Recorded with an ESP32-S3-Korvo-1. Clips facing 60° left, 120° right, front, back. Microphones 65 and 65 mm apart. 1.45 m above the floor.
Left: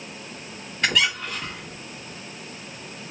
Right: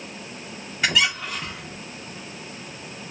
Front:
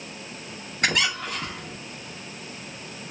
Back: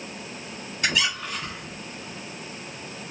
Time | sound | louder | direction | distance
0.8 | a squeak | right 1 dB, front 1 dB | 40° right | 2.5 m